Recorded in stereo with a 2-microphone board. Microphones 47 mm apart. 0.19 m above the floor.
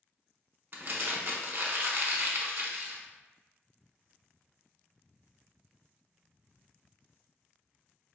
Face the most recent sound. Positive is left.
turn(degrees=-50)  # may be behind; listen again after turning